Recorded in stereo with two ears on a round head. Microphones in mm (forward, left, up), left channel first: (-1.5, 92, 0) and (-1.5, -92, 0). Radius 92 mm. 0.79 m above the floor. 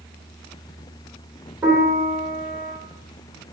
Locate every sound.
1.6 s a piano: 10° right (ahead or behind), 2 m